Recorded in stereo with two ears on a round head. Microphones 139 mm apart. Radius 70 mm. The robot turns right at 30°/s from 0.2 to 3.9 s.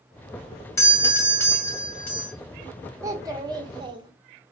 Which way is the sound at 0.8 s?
20° left (ahead or behind).